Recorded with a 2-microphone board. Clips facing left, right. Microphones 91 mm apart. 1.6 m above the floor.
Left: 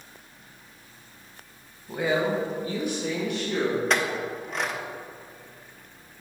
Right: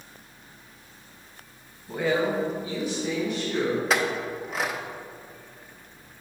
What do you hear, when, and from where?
1.9 s a woman speaking: centre (ahead or behind), 1.5 m; by 3.8 s 70° left (ahead or behind), 3 m
3.9 s a clink: 5° right (ahead or behind), 0.6 m